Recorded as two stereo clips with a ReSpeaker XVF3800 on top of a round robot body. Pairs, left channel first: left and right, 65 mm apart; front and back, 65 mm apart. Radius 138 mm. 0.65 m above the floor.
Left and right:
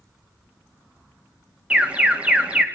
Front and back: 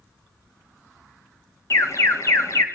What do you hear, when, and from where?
1.7 s an alarm: 25° right, 2.5 m